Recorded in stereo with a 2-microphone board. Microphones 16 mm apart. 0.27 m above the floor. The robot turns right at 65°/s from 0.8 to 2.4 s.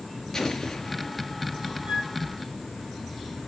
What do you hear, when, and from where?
0.3 s an explosion: 150° left, 3 m; by 1.3 s 175° right, 3 m
1.9 s a flute: 75° right (ahead or behind), 3 m; by 2.1 s 85° right, 3 m